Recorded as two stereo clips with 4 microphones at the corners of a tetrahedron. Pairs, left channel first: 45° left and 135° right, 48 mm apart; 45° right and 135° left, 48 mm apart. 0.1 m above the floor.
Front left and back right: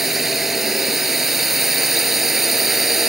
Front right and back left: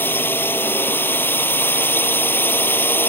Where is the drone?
50° right.